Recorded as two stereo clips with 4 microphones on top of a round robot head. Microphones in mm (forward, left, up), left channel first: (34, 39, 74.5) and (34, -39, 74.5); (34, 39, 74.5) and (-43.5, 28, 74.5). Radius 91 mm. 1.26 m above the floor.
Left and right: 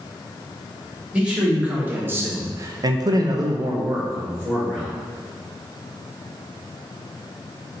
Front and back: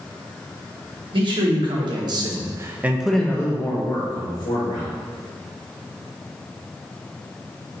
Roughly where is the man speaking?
Behind.